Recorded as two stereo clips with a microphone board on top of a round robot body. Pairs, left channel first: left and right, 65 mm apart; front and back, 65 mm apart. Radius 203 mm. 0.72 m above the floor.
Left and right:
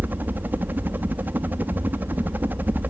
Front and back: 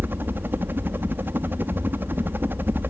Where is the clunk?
No clunk in this recording.